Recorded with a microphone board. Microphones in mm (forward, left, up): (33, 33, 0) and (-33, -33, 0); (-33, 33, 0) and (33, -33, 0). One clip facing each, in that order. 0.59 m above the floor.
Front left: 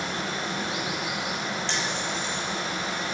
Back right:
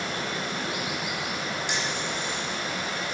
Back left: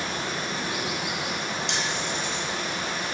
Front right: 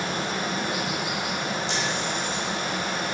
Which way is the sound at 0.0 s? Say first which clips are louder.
Front left 1 dB, front right 3 dB; 15° right.